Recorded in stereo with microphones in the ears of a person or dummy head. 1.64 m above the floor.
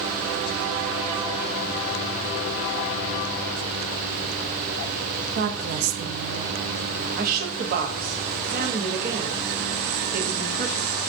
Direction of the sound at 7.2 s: 45° right (ahead or behind).